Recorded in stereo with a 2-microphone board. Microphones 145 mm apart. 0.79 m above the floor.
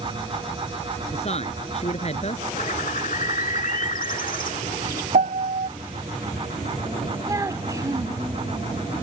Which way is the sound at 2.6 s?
65° left (ahead or behind).